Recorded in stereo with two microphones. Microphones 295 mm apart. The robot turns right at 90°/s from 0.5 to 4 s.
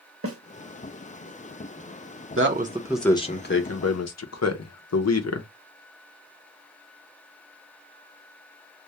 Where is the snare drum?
50° right (ahead or behind), 0.6 m.